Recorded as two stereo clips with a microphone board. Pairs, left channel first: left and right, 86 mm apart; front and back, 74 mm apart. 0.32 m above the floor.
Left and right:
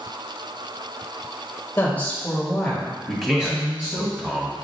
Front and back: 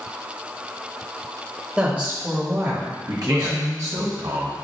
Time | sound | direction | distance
1.8 | a woman speaking | 125° left | 1.4 m
3.1 | a man speaking | straight behind | 1.8 m